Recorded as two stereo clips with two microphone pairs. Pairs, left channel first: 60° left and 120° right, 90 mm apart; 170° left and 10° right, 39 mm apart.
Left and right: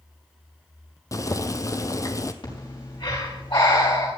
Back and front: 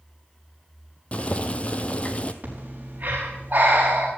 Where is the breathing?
30° left, 5.5 m.